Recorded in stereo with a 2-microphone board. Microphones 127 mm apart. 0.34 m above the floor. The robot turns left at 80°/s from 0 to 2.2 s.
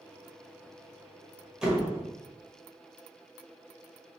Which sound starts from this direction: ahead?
A door slam, at 1.6 s.